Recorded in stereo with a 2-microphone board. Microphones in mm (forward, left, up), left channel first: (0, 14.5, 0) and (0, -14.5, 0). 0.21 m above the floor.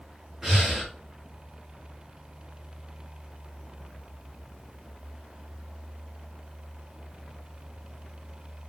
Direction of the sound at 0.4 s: 5° right (ahead or behind).